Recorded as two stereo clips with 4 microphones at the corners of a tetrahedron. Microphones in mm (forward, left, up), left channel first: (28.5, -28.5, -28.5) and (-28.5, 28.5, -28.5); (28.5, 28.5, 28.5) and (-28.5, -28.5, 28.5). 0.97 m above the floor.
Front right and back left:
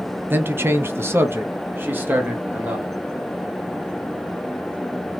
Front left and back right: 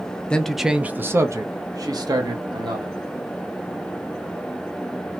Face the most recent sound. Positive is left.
turn(degrees=-155)